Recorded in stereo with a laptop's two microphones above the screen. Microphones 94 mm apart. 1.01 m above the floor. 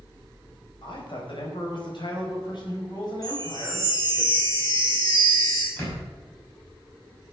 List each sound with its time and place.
0.8 s a man speaking: 65° left (ahead or behind), 5 m; by 4.2 s 45° left (ahead or behind), 5.5 m
3.2 s a chime: 40° left (ahead or behind), 6.5 m
5.8 s a door slam: 20° left (ahead or behind), 6 m